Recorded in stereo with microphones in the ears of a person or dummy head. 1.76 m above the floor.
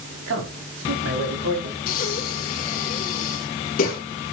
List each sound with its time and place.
0.3 s a man speaking: 85° right, 6 m
1.9 s breathing: 50° left (ahead or behind), 3 m